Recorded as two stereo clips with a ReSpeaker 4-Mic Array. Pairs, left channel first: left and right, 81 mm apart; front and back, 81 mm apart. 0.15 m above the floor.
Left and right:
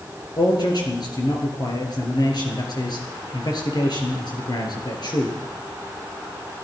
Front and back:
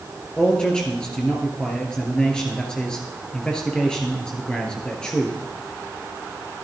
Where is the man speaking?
80° left, 2.5 m.